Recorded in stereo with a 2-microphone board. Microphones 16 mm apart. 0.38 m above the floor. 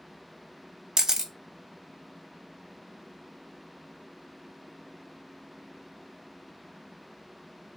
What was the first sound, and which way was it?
A camera shutter, 50° right (ahead or behind).